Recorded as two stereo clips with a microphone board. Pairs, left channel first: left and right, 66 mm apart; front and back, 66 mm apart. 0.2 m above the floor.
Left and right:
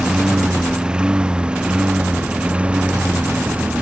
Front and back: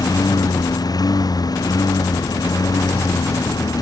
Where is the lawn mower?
10° right; by 3.8 s 20° right.